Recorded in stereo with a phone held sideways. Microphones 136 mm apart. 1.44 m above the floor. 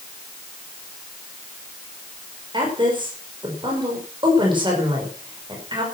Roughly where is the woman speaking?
Right.